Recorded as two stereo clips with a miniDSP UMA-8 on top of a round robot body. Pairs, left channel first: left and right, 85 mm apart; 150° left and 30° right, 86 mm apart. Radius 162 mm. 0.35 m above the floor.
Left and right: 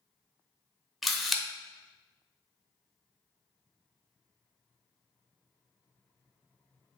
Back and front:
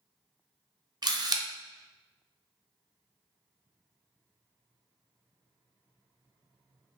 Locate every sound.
1.0 s a camera shutter: straight ahead, 0.6 m